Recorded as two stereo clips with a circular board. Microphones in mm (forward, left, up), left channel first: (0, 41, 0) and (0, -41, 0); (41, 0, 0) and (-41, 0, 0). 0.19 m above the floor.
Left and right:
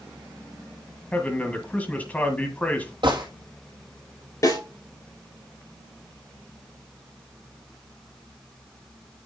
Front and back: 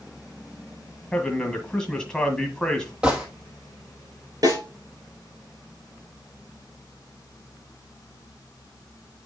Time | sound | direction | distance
1.1 | a man speaking | 65° left | 1.7 m
3.0 | a gunshot | 105° right | 3 m
4.4 | a snare drum | 135° left | 4.5 m